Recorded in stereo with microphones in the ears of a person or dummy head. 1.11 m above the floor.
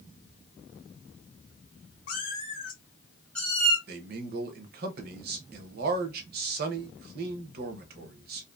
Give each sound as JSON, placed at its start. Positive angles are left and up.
{"t": 2.1, "sound": "a cat meowing", "side_deg": 50, "distance_m": 1.2}
{"t": 3.9, "sound": "a man speaking", "side_deg": -50, "distance_m": 0.6}